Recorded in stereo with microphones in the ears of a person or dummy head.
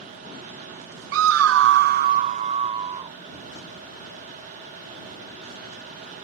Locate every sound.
1.1 s a scream: 65° right (ahead or behind); by 3.2 s 30° right (ahead or behind)